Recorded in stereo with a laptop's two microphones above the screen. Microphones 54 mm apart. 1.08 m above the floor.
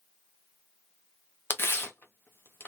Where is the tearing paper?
45° left (ahead or behind), 0.8 m.